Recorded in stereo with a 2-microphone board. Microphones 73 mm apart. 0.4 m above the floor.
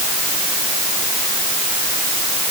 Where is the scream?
No scream in this recording.